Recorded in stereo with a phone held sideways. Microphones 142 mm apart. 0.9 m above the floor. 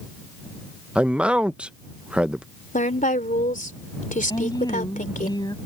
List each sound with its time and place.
0.9 s a man speaking: 10° right (ahead or behind)
2.7 s a woman speaking: 70° left (ahead or behind)
4.3 s a woman speaking: 30° left (ahead or behind)